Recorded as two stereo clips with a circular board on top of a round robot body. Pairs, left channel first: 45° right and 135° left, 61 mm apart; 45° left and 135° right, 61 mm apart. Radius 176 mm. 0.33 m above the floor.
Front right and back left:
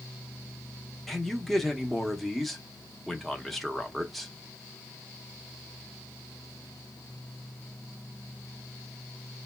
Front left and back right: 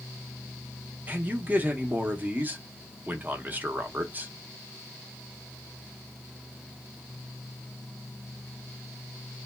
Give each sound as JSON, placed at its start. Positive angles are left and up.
{"t": 1.1, "sound": "a man speaking", "azimuth_deg": -130, "distance_m": 0.9}